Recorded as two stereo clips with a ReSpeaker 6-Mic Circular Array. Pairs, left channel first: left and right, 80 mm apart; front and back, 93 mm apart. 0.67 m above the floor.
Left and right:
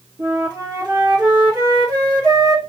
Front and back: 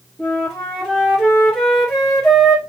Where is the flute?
90° right, 1.5 m.